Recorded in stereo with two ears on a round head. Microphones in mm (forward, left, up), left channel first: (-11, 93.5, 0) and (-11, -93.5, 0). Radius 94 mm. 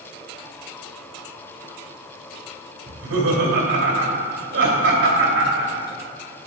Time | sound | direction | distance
2.9 | laughter | 60° right (ahead or behind) | 2 m